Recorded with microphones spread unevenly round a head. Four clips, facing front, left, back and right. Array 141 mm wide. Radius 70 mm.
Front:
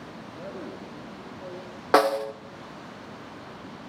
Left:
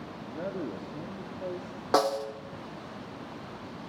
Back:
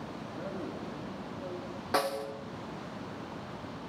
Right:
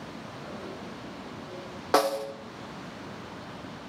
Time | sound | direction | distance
0.2 | a man speaking | 80° left | 2.5 m
1.9 | a snare drum | 5° right | 0.7 m